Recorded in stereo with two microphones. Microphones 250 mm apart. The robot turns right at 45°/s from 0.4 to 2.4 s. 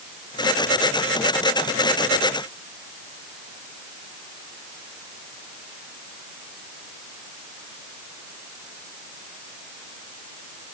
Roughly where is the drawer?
I don't hear a drawer.